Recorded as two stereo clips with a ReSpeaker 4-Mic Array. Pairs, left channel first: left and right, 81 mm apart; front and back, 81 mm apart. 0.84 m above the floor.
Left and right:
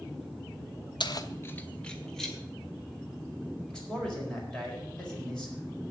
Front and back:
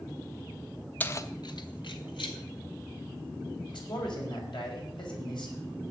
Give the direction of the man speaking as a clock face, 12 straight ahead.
12 o'clock.